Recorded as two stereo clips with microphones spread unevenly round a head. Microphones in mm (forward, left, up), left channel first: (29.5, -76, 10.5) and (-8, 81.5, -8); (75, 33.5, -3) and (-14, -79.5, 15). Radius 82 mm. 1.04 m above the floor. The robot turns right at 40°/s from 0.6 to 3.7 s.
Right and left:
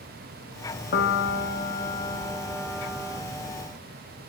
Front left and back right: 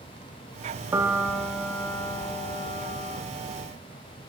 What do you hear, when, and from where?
0.9 s a piano: 65° right, 0.9 m; by 3.2 s 30° left, 0.9 m